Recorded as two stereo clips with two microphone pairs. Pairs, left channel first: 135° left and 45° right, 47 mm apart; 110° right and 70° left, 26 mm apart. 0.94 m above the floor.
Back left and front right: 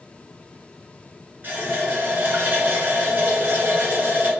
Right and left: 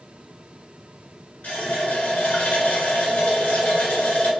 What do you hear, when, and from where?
1.4 s a running tap: 100° right, 1.3 m